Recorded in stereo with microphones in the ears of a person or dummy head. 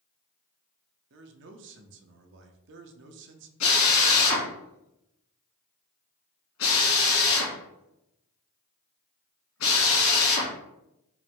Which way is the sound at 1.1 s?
60° right (ahead or behind).